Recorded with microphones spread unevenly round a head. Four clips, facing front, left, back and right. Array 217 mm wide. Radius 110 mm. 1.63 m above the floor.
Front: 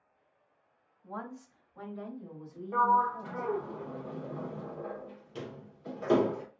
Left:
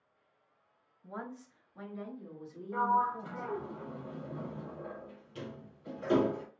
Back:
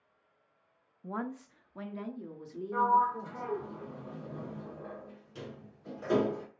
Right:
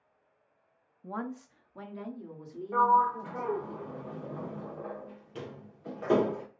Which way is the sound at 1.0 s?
150° right.